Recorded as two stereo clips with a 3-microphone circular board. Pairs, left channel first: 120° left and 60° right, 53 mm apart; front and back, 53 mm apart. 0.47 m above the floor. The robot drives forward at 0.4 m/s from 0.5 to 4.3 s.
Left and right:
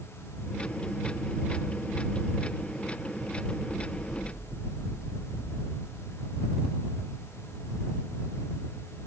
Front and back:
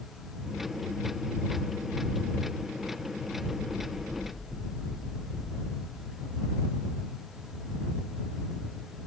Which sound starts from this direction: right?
Knocking, at 3.7 s.